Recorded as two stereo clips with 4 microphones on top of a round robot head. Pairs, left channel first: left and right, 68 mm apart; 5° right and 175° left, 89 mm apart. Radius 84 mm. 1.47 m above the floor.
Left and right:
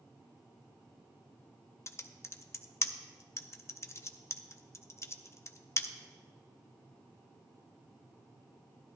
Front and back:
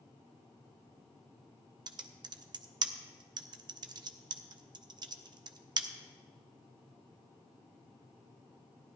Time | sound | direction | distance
1.9 | typing on a keyboard | 140° left | 0.7 m